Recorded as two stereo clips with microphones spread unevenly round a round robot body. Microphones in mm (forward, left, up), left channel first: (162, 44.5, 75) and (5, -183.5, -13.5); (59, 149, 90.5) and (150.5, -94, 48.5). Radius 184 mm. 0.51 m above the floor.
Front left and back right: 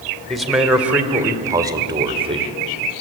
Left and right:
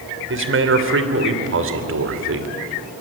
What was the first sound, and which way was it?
A man speaking, 45° right.